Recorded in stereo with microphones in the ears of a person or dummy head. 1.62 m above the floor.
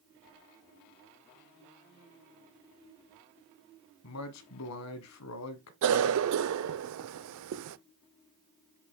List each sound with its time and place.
4.0 s a man speaking: 80° left, 1.5 m
5.8 s a cough: 75° right (ahead or behind), 0.6 m